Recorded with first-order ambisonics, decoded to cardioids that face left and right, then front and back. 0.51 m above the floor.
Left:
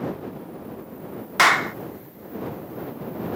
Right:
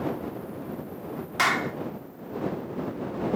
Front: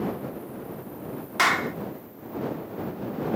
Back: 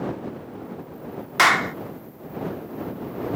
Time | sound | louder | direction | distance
1.4 | a clap | left 7 dB, back 5 dB | 120° left | ?